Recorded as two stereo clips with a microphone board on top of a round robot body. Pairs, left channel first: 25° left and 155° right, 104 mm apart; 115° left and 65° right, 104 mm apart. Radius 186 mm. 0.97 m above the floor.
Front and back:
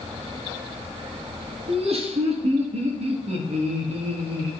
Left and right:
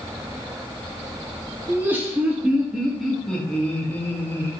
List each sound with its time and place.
1.7 s laughter: 140° right, 2.5 m; by 4.5 s 175° left, 2.5 m